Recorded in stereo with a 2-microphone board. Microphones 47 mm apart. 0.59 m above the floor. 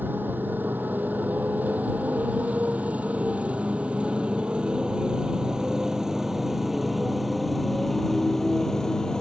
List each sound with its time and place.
0.0 s a motorcycle: 45° right (ahead or behind); by 9.2 s 10° left (ahead or behind)